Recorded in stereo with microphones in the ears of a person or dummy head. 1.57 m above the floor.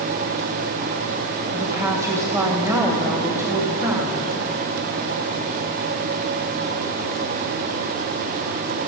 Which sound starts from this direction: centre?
A woman speaking, at 1.5 s.